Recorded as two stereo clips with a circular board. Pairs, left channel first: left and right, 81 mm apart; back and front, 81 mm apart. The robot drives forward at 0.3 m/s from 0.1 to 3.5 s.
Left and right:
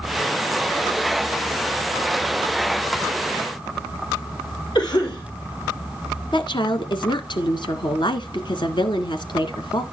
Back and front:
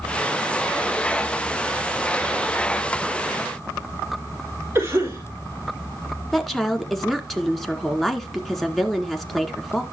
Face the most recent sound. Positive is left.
turn(degrees=95)